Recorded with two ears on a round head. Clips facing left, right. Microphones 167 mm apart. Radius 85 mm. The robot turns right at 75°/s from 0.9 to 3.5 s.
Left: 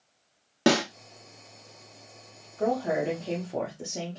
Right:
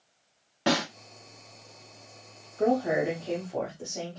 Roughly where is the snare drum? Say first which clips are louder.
Left 4 dB; left.